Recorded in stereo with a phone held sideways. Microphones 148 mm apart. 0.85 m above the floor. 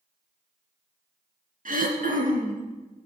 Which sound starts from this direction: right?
Throat clearing, at 1.6 s.